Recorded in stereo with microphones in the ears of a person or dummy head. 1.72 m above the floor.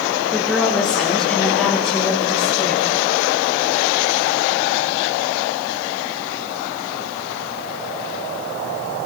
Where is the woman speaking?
Centre (ahead or behind), 4 m; by 3.0 s 10° left (ahead or behind), 6 m.